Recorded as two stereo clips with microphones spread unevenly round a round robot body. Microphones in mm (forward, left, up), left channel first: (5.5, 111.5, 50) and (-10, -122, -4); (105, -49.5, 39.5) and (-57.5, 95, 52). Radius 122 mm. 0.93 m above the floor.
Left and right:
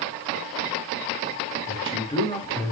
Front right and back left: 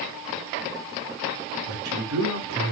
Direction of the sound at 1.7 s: 155° left.